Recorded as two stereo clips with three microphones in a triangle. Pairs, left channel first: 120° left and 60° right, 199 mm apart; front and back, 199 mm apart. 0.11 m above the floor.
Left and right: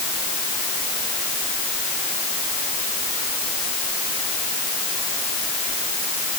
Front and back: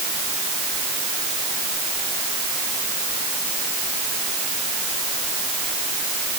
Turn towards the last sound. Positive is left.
No sound to turn to.